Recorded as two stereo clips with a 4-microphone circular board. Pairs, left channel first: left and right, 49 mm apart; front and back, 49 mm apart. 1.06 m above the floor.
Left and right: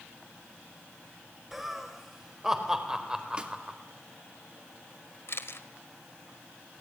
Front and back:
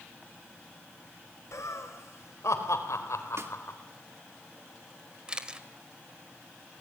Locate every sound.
1.5 s laughter: 5° right, 5 m; by 3.8 s 15° right, 4 m
3.4 s a snare drum: 160° right, 2 m
5.3 s a camera shutter: 110° left, 1.5 m